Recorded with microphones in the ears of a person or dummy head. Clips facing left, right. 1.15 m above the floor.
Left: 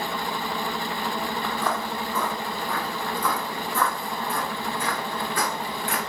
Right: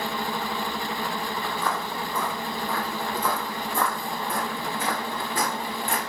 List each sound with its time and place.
1.4 s footsteps: 20° left (ahead or behind), 1.7 m; by 6.0 s 30° right (ahead or behind), 3.5 m